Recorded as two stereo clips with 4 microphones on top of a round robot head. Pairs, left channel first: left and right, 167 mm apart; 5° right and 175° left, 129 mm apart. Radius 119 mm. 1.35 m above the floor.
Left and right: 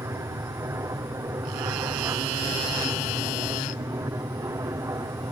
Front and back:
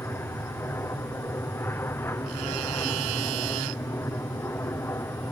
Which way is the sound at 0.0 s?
45° right.